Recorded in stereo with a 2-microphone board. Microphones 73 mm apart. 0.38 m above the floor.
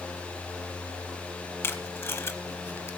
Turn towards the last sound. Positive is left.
turn(degrees=35)  # may be behind; listen again after turning